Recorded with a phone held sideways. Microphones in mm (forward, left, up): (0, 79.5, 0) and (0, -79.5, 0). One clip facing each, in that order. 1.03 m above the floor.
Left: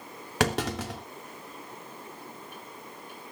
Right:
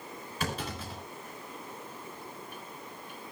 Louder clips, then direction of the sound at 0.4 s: Left 9 dB; 80° left.